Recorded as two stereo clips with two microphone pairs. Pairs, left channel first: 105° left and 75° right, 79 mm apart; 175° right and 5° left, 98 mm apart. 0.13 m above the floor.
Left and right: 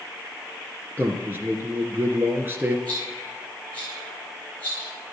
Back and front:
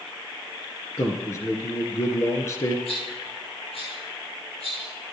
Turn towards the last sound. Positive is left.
turn(degrees=175)